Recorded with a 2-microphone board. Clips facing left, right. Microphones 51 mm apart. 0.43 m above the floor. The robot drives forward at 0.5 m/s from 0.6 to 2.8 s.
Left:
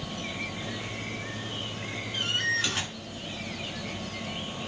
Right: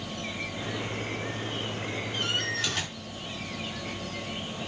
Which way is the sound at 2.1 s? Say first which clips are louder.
Left 4 dB; 15° left (ahead or behind).